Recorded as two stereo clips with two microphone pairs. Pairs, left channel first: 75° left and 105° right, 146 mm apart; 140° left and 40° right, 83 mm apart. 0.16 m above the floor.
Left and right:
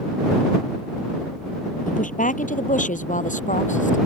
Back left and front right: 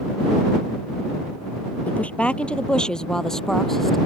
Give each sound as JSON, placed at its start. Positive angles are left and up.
{"t": 1.9, "sound": "a woman speaking", "azimuth_deg": 65}